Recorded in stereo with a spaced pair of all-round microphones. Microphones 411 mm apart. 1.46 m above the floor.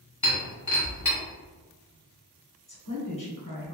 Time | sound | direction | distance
0.2 | breaking glass | 45° left (ahead or behind) | 1.6 m
2.7 | a woman speaking | 50° left (ahead or behind) | 1.9 m